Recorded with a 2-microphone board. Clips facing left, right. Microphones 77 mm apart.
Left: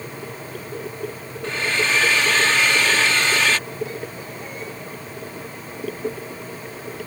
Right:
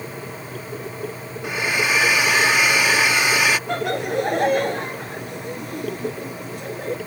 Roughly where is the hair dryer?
Centre.